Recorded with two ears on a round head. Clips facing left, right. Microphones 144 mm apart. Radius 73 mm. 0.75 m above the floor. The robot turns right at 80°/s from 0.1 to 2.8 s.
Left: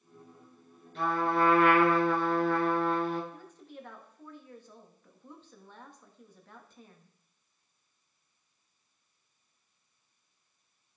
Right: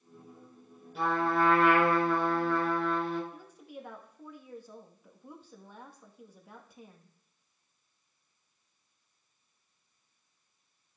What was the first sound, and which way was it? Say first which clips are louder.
A trumpet: even; 10° right.